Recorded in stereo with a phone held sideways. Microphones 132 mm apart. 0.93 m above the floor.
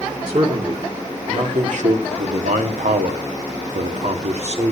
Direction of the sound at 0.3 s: 50° right (ahead or behind).